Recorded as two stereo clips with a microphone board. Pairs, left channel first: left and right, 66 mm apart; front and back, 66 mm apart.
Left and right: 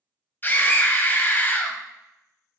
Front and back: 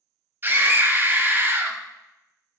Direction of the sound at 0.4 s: 135° left.